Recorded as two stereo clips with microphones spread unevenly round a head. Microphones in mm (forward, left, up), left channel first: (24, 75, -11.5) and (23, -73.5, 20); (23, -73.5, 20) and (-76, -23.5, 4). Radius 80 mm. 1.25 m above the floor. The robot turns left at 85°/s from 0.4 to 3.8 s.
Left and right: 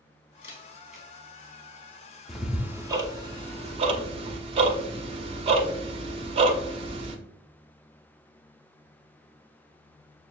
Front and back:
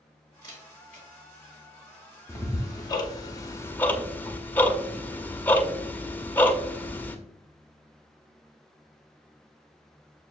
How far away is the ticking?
About 0.6 m.